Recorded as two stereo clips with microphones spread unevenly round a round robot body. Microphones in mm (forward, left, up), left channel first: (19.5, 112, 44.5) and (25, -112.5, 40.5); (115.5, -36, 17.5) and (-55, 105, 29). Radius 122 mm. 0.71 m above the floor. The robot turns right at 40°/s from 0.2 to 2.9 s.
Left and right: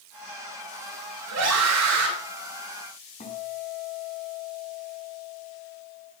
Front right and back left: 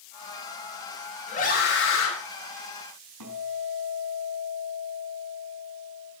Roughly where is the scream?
Right.